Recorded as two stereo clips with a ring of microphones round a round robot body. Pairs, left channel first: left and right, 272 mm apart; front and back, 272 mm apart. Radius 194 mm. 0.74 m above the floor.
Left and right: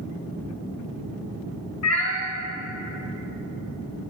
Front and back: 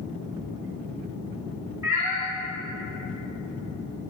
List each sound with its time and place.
1.8 s a cat meowing: 100° left, 1.9 m